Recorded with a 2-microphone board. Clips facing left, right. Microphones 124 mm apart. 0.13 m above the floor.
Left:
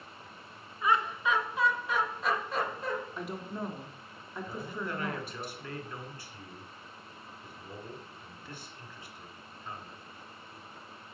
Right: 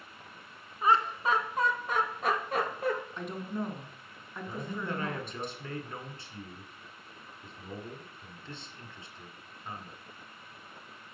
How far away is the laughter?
About 1.2 m.